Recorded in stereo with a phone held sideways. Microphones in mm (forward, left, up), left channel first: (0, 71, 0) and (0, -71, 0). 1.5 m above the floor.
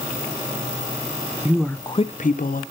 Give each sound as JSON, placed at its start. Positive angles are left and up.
{"t": 1.4, "sound": "a woman speaking", "side_deg": -15, "distance_m": 0.6}